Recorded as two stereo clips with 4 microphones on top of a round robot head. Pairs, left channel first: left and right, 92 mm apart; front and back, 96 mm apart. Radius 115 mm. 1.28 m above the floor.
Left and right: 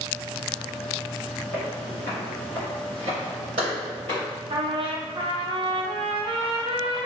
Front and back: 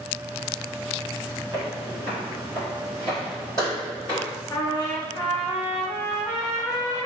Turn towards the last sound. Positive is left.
turn(degrees=-60)